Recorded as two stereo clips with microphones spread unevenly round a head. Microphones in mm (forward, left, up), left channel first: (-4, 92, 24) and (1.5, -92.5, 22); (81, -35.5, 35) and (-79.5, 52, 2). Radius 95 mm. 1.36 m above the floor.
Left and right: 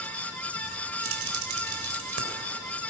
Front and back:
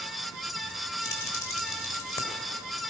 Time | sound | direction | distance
1.0 | keys jangling | 100° right | 3.5 m